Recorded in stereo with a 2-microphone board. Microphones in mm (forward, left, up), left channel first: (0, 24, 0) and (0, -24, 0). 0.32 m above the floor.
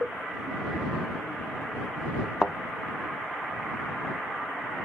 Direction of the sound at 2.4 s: Centre (ahead or behind).